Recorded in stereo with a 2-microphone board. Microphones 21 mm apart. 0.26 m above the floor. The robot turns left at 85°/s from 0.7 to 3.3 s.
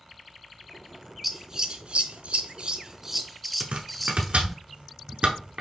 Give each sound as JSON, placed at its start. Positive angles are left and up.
{"t": 1.2, "sound": "scissors", "side_deg": -5, "distance_m": 0.6}
{"t": 3.6, "sound": "chopping", "side_deg": -75, "distance_m": 0.9}